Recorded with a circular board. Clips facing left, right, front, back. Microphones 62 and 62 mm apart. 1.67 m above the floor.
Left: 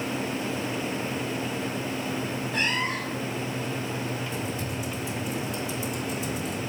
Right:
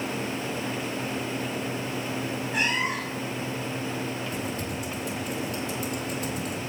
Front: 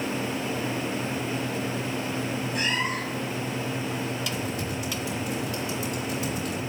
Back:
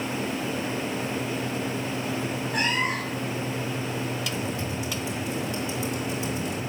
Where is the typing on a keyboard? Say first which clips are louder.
Even, back 1 dB; 120° right, 4 m.